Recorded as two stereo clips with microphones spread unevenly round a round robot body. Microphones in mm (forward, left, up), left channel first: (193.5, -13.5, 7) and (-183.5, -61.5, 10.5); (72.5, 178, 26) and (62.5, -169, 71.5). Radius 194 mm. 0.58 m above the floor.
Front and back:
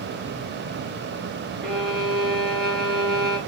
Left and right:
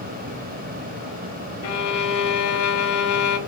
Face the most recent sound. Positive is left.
turn(degrees=95)